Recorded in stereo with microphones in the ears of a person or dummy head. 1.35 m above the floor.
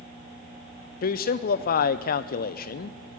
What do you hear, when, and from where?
1.0 s a man speaking: 45° left (ahead or behind), 0.5 m